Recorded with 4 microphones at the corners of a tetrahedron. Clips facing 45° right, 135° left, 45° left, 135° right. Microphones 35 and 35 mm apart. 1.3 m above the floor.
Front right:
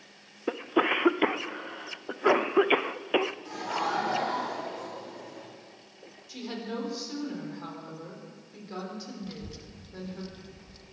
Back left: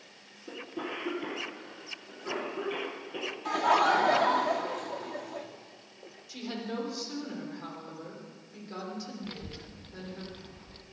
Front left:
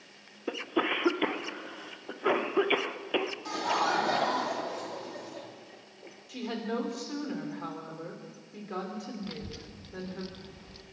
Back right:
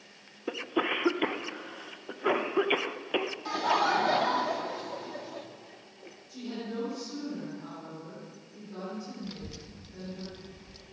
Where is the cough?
45° right, 0.8 m.